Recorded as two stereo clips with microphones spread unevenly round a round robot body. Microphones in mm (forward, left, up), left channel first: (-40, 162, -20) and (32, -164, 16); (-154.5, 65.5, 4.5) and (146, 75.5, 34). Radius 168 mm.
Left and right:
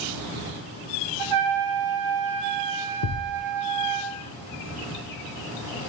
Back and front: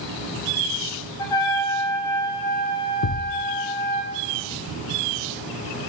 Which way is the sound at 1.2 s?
95° right.